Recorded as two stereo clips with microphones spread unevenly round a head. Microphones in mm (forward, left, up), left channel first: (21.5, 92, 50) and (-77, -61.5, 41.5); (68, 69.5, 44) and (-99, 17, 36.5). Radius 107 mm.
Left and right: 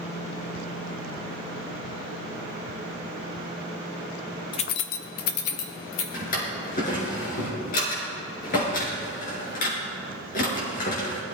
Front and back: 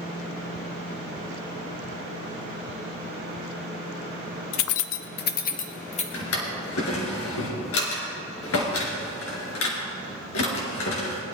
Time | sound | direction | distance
4.5 | keys jangling | 10° right | 0.5 m
6.1 | a drawer | 5° left | 3.5 m